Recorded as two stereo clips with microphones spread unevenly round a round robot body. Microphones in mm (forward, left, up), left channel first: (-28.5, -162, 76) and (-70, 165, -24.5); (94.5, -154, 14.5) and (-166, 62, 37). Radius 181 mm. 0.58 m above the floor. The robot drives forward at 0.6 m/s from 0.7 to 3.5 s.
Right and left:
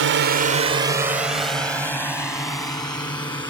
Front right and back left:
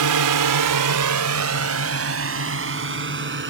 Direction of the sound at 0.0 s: 115° left.